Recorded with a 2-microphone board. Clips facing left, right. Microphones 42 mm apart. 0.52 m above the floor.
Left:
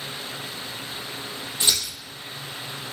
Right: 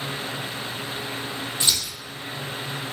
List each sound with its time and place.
1.6 s scissors: 15° left (ahead or behind), 3.5 m